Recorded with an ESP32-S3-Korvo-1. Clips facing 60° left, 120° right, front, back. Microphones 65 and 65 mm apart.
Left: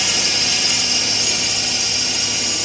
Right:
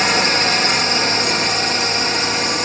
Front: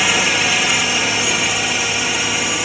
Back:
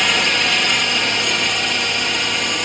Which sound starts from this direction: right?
A drone, at 0.0 s.